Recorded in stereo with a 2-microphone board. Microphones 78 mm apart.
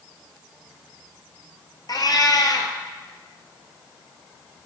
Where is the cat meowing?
55° left (ahead or behind), 0.7 m.